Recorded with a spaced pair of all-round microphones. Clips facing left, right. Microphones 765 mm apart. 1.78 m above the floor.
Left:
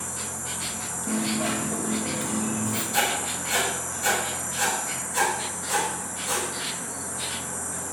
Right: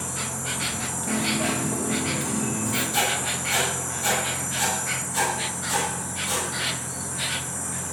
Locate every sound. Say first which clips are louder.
0.0 s an insect: right 4 dB; 80° right, 0.8 m
1.1 s a dropped coin: even; 55° right (ahead or behind), 3 m
2.9 s writing: right 1 dB; 20° left (ahead or behind), 7 m